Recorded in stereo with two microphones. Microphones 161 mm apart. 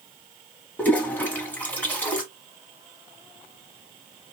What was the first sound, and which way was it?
A toilet flushing, 10° left (ahead or behind).